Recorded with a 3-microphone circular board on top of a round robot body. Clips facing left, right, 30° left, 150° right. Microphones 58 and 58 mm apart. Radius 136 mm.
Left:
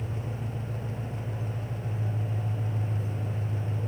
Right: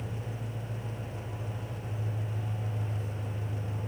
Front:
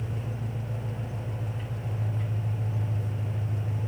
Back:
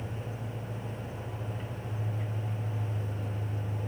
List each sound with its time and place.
0.0 s an engine running: 45° left, 2 m